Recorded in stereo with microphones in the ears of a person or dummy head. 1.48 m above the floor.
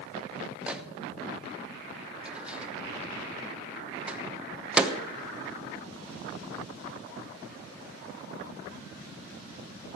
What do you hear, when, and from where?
0.7 s a microwave: 10° right (ahead or behind), 1.0 m